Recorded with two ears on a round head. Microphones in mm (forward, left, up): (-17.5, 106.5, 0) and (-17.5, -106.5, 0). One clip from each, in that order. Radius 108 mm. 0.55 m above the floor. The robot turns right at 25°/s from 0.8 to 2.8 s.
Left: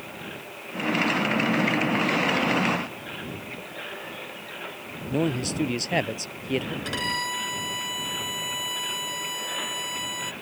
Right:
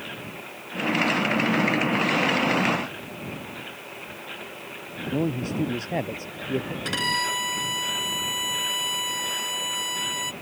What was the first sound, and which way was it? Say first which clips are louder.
A man speaking: left 1 dB; 80° left.